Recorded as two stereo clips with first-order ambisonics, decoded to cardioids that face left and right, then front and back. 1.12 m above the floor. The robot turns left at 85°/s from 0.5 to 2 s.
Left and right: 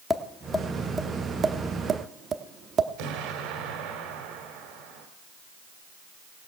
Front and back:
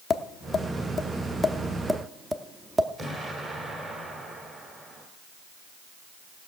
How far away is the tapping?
About 0.7 m.